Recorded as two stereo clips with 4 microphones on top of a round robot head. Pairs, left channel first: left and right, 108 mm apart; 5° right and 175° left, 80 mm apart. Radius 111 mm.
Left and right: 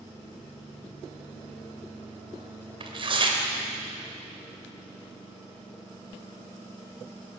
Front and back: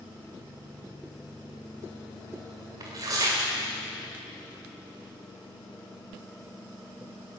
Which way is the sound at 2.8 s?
130° right.